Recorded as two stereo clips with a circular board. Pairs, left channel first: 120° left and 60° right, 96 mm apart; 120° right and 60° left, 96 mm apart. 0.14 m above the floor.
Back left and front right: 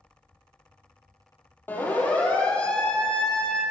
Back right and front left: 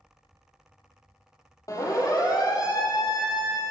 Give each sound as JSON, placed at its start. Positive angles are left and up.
{"t": 1.7, "sound": "a siren", "azimuth_deg": -170, "distance_m": 6.5}